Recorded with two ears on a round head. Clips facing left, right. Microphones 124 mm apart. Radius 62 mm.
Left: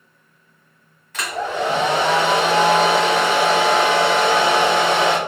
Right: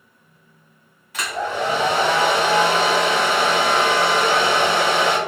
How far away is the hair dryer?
About 1.3 m.